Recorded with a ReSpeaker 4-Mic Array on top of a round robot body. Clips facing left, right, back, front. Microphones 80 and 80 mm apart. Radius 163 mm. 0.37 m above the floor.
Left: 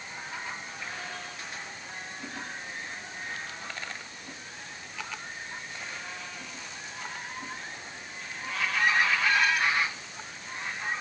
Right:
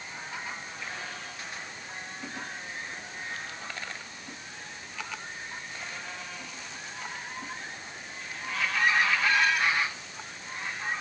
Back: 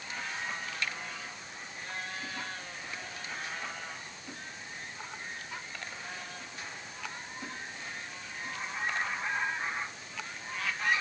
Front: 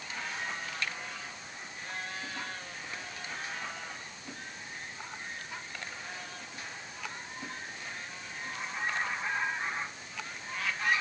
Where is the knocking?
No knocking in this recording.